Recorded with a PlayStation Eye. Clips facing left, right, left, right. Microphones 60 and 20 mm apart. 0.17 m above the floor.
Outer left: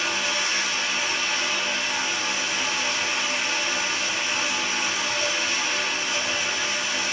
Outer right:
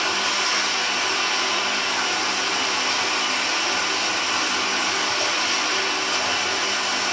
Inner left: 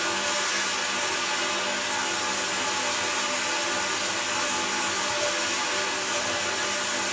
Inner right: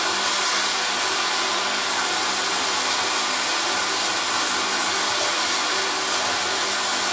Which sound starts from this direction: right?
Running water, at 0.0 s.